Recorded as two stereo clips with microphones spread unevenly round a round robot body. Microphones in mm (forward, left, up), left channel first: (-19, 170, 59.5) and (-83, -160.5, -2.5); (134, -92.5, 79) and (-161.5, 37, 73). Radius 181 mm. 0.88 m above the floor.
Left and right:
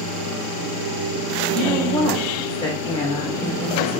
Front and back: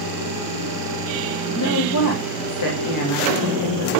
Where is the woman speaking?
5° right, 1.7 m.